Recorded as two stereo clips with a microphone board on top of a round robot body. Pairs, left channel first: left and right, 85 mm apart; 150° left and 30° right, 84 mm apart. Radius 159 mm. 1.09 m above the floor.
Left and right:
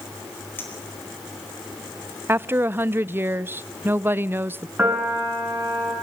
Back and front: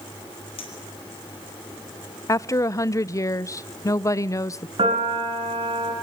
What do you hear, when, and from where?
0.6 s a clink: 155° left, 4.5 m
2.3 s a woman speaking: 155° right, 0.6 m
4.8 s a piano: 15° right, 7.5 m